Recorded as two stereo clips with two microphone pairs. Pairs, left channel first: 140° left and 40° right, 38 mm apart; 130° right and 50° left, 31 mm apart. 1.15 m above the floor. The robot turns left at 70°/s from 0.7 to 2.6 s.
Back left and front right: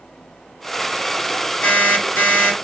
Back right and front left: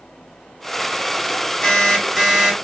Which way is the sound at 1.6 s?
170° left.